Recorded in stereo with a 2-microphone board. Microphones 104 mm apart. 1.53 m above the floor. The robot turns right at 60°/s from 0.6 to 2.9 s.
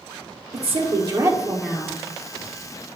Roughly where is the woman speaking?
Ahead right.